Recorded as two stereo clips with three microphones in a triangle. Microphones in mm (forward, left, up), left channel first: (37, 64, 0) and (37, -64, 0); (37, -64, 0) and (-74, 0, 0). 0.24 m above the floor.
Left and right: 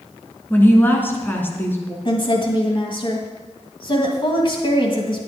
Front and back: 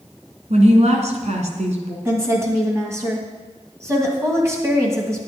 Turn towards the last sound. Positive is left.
turn(degrees=95)